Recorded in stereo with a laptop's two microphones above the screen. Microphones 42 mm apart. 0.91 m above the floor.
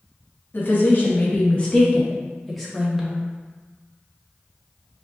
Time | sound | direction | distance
0.5 | a woman speaking | 50° left (ahead or behind) | 1.4 m